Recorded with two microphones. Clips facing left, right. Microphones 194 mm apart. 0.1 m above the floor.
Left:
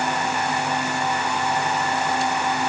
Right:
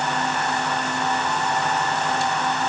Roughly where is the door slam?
No door slam in this recording.